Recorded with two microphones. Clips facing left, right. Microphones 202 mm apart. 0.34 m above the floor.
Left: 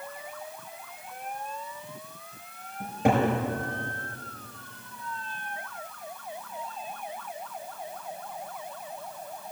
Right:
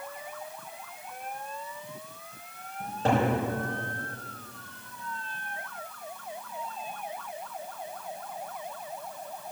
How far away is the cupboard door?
About 4.5 m.